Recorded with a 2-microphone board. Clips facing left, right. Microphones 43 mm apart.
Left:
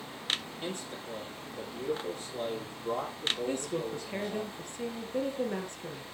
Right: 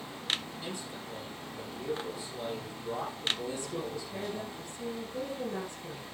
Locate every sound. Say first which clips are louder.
0.6 s a man speaking: left 2 dB; 50° left (ahead or behind), 5.5 m
3.5 s a woman speaking: left 3 dB; 60° left (ahead or behind), 2.5 m